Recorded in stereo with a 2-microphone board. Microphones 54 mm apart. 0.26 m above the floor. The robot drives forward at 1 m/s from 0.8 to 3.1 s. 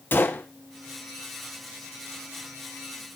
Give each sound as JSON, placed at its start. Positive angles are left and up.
{"t": 0.1, "sound": "a gunshot", "side_deg": 40, "distance_m": 2.5}